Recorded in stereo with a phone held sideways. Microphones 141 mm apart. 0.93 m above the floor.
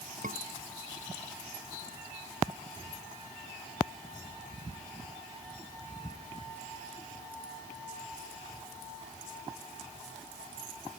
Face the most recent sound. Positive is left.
turn(degrees=-70)  # may be behind; listen again after turning